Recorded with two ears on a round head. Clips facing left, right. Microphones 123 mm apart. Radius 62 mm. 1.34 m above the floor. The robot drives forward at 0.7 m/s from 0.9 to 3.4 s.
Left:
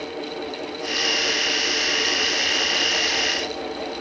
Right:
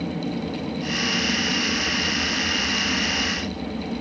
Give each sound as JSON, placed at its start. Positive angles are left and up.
{"t": 0.0, "sound": "an aircraft", "side_deg": -65}